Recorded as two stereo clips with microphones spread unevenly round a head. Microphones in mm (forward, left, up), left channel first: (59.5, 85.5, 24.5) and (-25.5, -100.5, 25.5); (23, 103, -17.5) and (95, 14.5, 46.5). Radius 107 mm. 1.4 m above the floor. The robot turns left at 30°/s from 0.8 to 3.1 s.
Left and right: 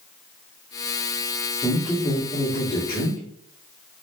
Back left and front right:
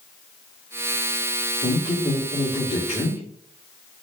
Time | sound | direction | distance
1.6 | a man speaking | 155° left | 1.8 m